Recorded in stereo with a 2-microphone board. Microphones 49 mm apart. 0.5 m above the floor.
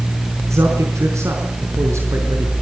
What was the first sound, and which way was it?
A man speaking, 70° right (ahead or behind).